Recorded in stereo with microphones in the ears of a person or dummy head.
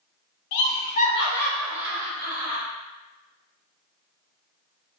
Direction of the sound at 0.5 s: 65° left (ahead or behind).